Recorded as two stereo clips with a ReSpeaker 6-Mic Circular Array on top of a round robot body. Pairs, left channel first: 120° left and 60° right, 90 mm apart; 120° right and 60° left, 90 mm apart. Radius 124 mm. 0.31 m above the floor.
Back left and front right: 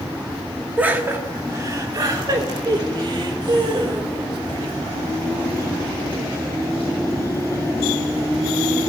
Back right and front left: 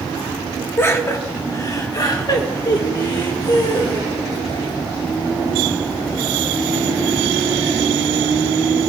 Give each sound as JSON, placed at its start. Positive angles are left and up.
{"t": 0.8, "sound": "laughter", "azimuth_deg": -110, "distance_m": 1.6}